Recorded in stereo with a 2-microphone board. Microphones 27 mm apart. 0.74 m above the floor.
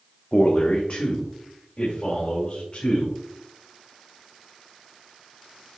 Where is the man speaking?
40° left (ahead or behind), 0.7 m.